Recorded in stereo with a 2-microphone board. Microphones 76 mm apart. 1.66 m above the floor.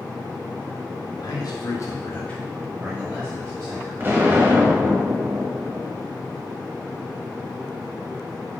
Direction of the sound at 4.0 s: 25° right (ahead or behind).